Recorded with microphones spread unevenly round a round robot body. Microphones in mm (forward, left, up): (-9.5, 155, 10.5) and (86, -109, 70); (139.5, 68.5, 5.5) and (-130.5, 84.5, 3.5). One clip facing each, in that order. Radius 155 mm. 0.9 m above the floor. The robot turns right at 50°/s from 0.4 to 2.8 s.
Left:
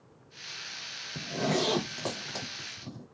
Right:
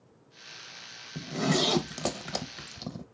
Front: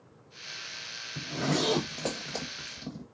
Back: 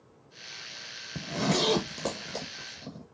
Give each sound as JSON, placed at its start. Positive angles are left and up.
{"t": 1.1, "sound": "a zipper", "azimuth_deg": -160, "distance_m": 0.6}